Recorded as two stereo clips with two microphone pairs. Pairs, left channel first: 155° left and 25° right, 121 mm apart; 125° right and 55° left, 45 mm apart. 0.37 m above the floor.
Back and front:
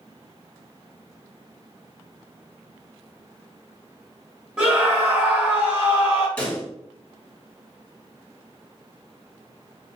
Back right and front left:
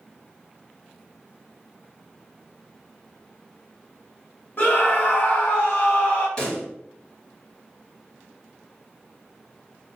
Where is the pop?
155° right, 1.6 m.